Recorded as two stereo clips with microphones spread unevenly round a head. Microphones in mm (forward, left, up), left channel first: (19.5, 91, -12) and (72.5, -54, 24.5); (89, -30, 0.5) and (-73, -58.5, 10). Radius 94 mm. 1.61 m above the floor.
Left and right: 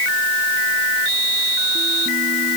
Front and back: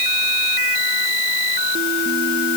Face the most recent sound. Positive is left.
No sound to turn to.